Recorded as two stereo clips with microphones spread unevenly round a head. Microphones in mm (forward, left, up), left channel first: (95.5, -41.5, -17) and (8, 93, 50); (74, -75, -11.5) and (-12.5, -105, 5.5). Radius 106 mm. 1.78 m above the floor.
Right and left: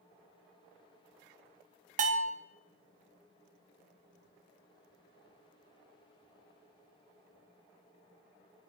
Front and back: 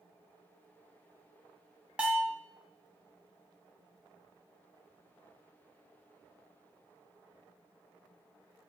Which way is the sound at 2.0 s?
120° left.